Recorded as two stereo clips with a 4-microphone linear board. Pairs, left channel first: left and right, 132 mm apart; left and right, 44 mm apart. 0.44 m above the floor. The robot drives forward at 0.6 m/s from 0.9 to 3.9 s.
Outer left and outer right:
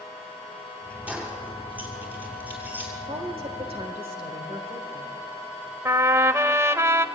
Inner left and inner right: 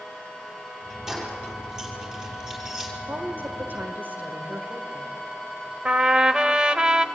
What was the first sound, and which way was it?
Keys jangling, 10° right (ahead or behind).